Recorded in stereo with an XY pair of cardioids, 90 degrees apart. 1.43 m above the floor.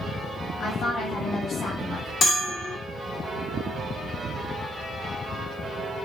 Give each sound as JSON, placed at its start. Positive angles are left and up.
{"t": 0.6, "sound": "a woman speaking", "azimuth_deg": 65, "distance_m": 2.5}
{"t": 2.2, "sound": "a bell", "azimuth_deg": 60, "distance_m": 1.4}